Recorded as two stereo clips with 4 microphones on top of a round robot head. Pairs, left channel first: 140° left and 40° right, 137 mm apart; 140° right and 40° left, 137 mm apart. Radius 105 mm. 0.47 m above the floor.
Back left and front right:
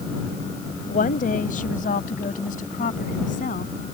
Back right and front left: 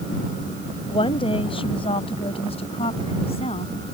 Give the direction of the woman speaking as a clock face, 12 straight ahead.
6 o'clock.